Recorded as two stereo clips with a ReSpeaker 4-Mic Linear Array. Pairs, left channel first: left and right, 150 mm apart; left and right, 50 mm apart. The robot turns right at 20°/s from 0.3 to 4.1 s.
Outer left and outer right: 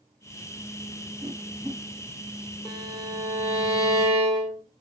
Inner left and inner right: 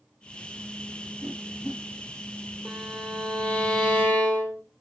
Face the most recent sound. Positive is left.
turn(degrees=30)  # may be behind; listen again after turning